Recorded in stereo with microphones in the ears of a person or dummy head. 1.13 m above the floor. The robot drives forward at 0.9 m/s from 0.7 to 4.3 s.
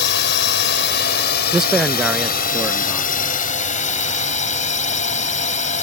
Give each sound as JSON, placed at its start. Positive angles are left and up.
{"t": 0.0, "sound": "a drone", "side_deg": 55}
{"t": 1.5, "sound": "a man speaking", "side_deg": 0}